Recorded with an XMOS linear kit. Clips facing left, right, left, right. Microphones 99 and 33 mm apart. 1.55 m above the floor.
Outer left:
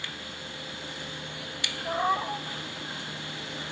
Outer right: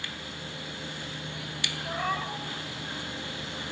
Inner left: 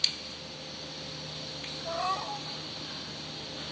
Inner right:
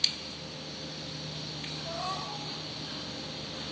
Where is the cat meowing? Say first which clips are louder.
Outer left 5 dB, inner left 5 dB; 20° left (ahead or behind), 2 m.